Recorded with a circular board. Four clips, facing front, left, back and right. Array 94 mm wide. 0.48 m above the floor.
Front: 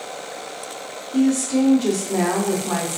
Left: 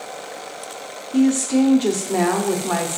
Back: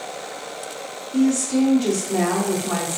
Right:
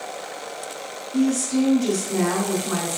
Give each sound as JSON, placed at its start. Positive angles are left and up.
{"t": 1.1, "sound": "a woman speaking", "azimuth_deg": 80, "distance_m": 1.0}